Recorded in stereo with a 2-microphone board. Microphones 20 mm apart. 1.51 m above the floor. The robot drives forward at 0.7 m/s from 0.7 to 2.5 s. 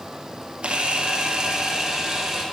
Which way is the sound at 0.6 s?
55° right (ahead or behind).